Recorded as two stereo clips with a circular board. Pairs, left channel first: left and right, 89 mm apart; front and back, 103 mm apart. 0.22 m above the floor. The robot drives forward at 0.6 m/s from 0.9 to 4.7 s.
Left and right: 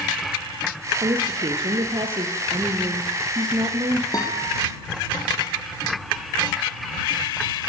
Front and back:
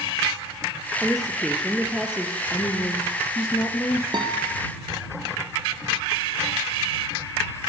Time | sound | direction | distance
1.0 | a woman speaking | 90° right | 4.5 m
2.5 | a woman speaking | 55° right | 8.5 m
4.1 | a guitar | 135° left | 7 m